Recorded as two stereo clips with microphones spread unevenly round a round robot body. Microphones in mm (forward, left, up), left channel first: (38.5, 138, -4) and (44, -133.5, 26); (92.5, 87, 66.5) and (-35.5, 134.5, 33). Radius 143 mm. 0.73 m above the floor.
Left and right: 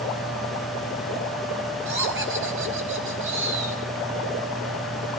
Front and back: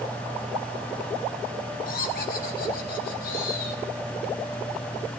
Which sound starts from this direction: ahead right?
Laughter, at 1.9 s.